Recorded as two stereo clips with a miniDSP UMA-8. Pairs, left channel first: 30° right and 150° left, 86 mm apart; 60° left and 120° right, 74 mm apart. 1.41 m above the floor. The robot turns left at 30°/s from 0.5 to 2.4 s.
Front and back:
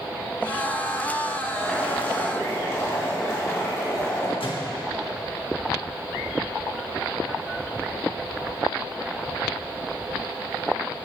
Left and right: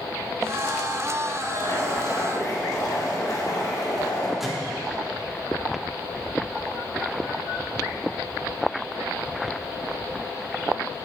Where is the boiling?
50° left, 4 m; by 4.3 s 25° left, 4 m.